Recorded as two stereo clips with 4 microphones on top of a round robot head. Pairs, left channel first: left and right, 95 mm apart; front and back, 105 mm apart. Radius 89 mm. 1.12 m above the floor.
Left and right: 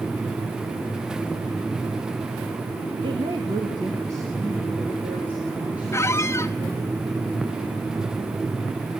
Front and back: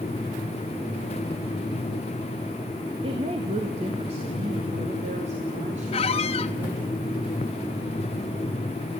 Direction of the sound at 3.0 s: 135° right.